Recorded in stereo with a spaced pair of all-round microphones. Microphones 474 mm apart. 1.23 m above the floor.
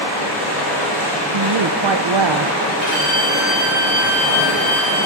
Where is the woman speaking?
60° right (ahead or behind), 0.5 m.